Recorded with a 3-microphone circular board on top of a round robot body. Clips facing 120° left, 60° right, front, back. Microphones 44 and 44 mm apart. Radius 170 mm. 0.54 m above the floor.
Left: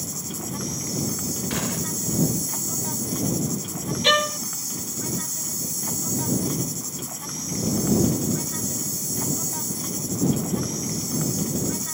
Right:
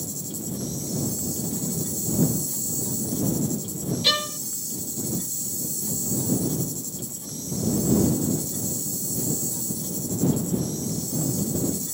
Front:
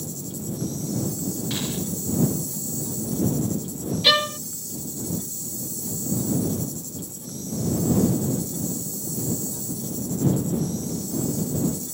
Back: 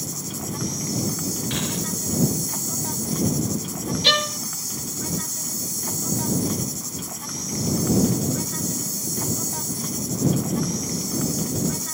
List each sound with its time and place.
0.0 s an insect: 155° left
1.5 s a gunshot: 110° left
4.0 s a violin: 85° left